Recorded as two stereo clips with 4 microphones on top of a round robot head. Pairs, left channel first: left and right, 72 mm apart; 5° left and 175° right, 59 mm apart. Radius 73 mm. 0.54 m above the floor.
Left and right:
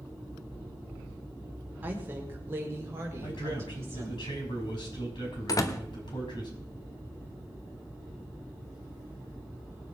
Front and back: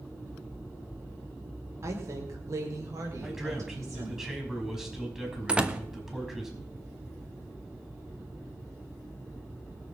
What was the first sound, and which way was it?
A woman speaking, 150° right.